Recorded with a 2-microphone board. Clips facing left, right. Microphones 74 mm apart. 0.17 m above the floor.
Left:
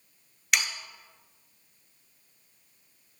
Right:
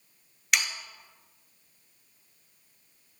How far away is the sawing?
About 1.0 m.